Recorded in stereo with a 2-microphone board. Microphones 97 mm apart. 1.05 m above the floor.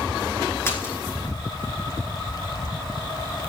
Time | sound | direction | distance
0.7 | a splash | 25° left (ahead or behind) | 2.5 m